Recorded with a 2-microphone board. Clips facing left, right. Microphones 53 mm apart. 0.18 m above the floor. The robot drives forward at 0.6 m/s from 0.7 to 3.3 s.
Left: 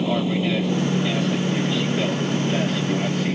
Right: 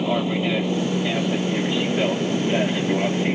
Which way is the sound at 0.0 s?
10° right (ahead or behind).